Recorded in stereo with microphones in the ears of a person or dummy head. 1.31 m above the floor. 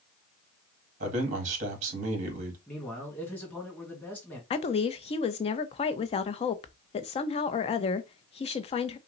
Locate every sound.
1.0 s a man speaking: 40° right (ahead or behind), 1.8 m
2.7 s a man speaking: 10° left (ahead or behind), 1.8 m
4.5 s a woman speaking: 30° left (ahead or behind), 0.6 m